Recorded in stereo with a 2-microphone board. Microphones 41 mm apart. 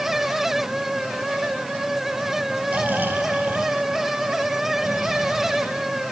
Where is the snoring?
55° right (ahead or behind), 3 m.